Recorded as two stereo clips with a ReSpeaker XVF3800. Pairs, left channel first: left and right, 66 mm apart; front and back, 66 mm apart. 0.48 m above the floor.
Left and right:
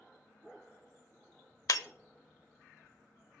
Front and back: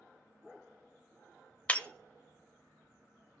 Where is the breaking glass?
70° left, 0.8 m.